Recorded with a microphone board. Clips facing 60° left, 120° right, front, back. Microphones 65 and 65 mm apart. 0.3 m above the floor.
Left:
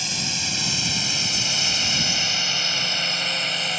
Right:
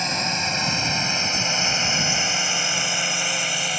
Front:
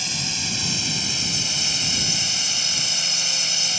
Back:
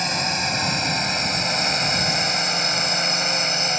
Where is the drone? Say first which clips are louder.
Right 6 dB, back 8 dB; 155° right; by 3.8 s 155° left.